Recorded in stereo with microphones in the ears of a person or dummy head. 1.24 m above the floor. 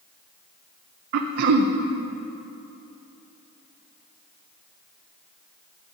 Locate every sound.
1.1 s throat clearing: 55° right (ahead or behind), 0.6 m